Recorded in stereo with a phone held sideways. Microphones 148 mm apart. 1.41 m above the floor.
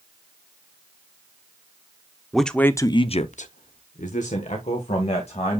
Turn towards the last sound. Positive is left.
turn(degrees=50)  # may be behind; listen again after turning